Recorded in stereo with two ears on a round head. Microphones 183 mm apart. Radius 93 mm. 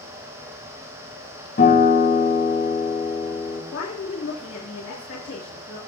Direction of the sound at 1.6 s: 40° left (ahead or behind).